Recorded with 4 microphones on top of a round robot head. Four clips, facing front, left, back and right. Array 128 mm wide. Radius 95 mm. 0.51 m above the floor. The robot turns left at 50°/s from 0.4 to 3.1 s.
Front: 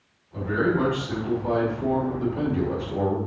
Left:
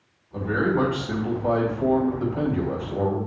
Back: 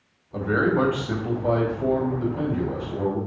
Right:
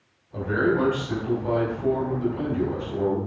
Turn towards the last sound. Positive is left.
turn(degrees=45)